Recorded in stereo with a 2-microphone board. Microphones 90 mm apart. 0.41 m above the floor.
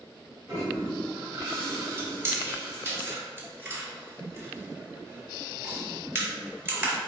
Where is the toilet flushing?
30° right (ahead or behind), 1.5 m.